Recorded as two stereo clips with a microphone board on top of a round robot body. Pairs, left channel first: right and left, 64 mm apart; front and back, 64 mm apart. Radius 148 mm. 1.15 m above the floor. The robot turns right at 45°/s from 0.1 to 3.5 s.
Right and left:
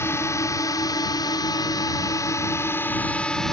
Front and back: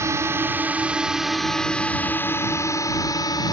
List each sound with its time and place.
0.0 s a drone: 140° right; by 3.5 s 10° right